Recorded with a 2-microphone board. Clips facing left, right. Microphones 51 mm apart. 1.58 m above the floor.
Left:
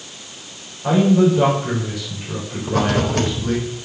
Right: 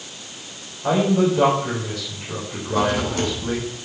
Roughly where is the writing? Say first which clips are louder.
Left 2 dB; left.